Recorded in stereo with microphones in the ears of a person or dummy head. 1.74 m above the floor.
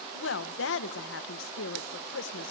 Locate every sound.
0.1 s a woman speaking: 80° left, 1.7 m